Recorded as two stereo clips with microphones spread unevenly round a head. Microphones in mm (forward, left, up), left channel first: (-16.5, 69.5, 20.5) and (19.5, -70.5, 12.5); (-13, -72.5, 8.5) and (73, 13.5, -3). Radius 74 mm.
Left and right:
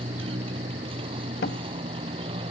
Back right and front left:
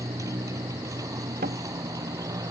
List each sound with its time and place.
0.0 s a motorcycle: 20° right
1.4 s a door slam: 80° left